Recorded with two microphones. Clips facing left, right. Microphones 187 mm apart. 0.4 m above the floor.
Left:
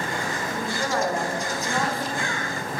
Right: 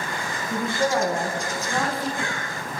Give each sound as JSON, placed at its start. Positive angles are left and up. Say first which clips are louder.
{"t": 0.5, "sound": "a woman speaking", "louder": "right 6 dB", "side_deg": -25, "distance_m": 3.5}